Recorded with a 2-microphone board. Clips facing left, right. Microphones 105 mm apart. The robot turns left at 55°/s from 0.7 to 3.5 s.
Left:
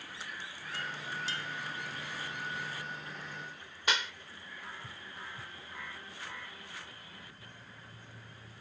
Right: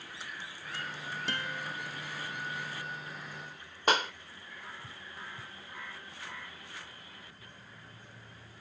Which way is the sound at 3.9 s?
45° right (ahead or behind).